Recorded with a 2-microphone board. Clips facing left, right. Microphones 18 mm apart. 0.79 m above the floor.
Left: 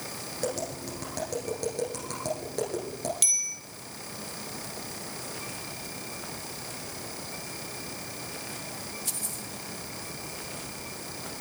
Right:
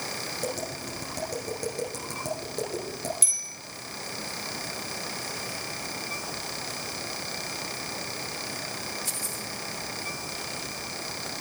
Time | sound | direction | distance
0.4 | tapping | 15° left (ahead or behind) | 8 m
3.2 | a bicycle bell | 45° left (ahead or behind) | 2 m